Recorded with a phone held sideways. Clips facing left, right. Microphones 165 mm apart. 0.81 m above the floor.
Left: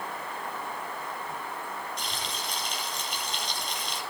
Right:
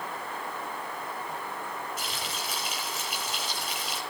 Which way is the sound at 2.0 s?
5° right (ahead or behind).